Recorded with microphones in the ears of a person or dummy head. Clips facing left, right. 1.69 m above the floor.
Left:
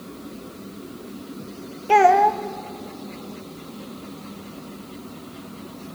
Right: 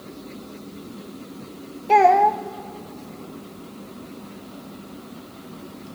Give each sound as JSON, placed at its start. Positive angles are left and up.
{"t": 1.9, "sound": "a child speaking", "side_deg": 5, "distance_m": 0.9}